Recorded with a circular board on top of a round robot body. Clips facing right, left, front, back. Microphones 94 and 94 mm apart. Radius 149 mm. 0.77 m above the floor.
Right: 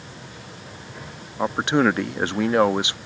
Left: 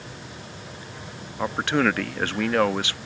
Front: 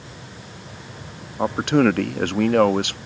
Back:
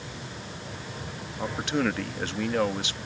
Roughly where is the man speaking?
Ahead.